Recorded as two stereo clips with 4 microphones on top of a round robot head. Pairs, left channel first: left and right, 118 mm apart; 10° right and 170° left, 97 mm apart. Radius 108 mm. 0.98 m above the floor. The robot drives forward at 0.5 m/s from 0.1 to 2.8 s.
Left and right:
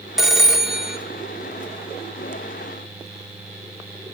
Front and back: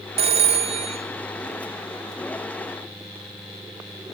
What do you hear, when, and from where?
0.2 s a phone ringing: 175° right, 2 m; by 1.0 s straight behind, 2.5 m